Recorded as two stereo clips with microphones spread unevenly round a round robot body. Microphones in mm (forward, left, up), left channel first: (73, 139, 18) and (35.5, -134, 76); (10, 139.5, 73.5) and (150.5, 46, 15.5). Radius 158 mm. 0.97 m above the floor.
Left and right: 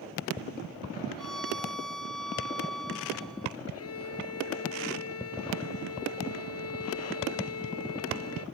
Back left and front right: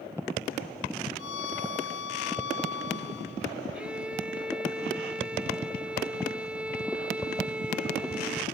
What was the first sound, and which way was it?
A violin, 170° left.